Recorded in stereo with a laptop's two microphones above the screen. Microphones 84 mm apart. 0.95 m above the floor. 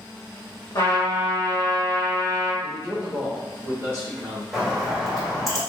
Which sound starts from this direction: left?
A trumpet, at 0.8 s.